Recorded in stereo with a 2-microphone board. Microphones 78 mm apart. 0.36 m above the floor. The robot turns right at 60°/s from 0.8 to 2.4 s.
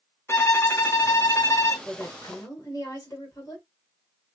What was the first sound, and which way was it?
A violin, 60° left.